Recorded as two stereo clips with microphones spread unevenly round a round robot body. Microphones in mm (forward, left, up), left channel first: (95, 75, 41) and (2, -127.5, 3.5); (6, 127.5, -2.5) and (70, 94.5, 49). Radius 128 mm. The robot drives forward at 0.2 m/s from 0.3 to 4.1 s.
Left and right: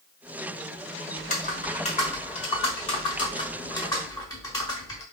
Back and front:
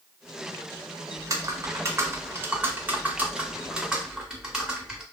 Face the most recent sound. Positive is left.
turn(degrees=140)